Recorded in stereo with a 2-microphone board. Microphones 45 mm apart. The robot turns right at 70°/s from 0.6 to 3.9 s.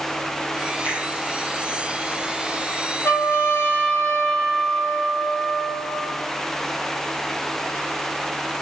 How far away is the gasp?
I don't hear a gasp.